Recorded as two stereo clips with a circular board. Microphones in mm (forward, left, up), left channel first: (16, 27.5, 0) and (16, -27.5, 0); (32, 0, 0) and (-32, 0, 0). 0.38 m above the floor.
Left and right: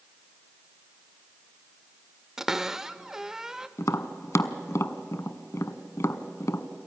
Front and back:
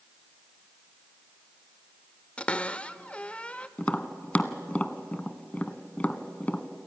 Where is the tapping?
70° left, 0.7 m.